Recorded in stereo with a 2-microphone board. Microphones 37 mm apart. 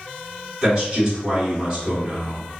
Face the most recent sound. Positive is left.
turn(degrees=-20)  # may be behind; listen again after turning